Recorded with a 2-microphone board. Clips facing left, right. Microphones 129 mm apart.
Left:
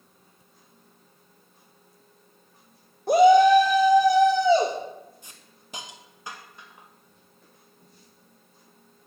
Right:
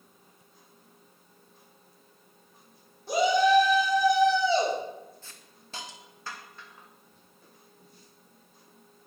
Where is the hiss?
15° left (ahead or behind), 0.7 m.